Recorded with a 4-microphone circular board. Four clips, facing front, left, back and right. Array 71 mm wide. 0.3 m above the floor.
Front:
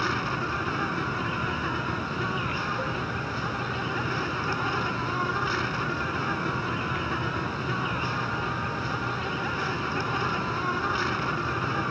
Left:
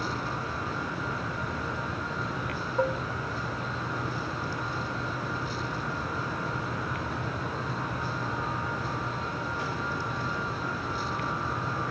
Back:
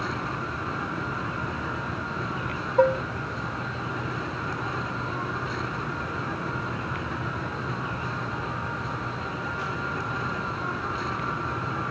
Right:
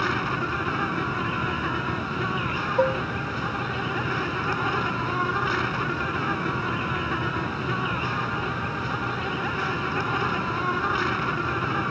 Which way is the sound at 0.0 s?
70° right.